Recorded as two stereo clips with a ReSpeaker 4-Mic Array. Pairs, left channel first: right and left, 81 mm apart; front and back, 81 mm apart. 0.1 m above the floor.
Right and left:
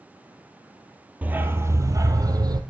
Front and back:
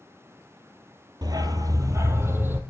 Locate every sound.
1.2 s a dog barking: 160° left, 0.8 m; by 2.6 s 115° left, 1.1 m